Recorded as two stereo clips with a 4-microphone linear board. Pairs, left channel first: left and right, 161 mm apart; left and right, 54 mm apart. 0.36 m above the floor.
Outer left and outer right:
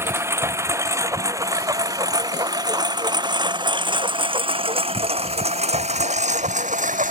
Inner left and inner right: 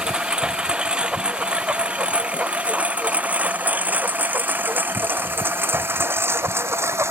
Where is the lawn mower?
15° right (ahead or behind); by 7.1 s 55° right (ahead or behind).